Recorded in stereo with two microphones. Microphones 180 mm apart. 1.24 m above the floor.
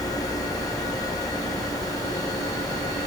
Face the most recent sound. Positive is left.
No sound to turn to.